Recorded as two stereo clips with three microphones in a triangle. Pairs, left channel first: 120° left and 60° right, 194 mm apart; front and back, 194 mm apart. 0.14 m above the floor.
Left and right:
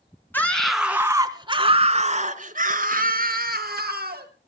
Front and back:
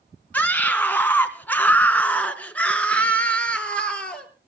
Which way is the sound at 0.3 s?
65° left.